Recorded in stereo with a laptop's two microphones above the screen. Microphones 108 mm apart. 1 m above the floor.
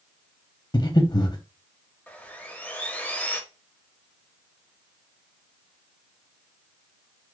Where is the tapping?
I don't hear tapping.